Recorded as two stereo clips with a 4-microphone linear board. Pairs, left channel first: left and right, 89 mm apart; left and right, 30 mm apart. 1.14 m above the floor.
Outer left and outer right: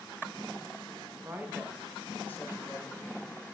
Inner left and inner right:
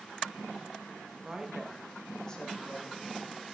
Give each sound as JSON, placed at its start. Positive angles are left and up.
{"t": 1.2, "sound": "a woman speaking", "side_deg": -30, "distance_m": 1.1}